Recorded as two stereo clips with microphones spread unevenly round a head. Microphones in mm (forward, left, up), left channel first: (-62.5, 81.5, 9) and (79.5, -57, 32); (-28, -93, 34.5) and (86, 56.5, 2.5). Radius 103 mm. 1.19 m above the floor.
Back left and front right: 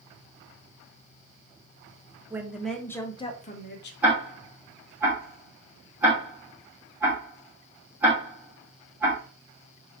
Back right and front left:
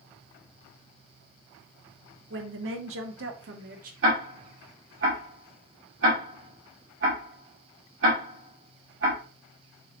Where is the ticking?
40° left, 2.5 m.